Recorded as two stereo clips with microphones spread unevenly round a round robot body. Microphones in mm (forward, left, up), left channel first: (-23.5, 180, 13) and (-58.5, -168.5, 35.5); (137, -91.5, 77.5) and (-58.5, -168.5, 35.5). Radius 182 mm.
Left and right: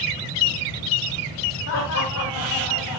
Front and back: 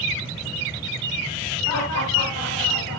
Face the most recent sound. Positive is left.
turn(degrees=50)